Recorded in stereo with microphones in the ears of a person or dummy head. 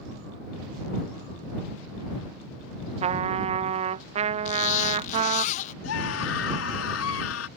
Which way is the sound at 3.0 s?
35° right (ahead or behind).